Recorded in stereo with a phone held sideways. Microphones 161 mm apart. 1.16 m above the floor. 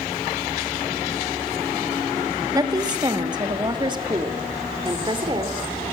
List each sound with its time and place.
2.5 s a woman speaking: 20° right (ahead or behind), 1.4 m; by 5.7 s 30° right (ahead or behind), 4.5 m